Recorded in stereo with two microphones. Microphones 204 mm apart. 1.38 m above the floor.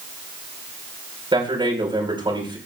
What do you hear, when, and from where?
1.3 s a man speaking: 25° right (ahead or behind), 5 m